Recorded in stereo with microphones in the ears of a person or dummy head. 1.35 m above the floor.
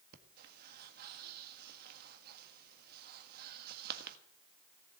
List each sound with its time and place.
0.1 s breathing: 55° right (ahead or behind), 1.6 m